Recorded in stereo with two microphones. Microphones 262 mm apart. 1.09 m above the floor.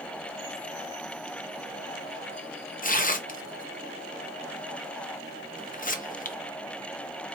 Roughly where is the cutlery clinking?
No cutlery clinking in this recording.